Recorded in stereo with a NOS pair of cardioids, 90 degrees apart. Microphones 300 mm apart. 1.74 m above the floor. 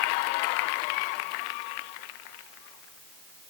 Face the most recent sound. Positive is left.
No sound to turn to.